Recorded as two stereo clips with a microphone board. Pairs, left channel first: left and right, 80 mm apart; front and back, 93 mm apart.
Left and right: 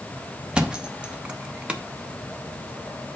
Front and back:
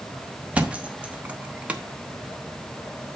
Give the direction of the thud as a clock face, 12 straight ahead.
5 o'clock.